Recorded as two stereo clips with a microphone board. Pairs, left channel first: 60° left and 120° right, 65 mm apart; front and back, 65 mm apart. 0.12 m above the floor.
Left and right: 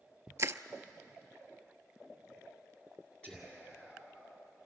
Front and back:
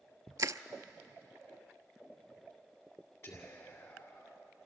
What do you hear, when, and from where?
0.4 s crushing: 160° right, 0.6 m
3.2 s whispering: 5° right, 2.5 m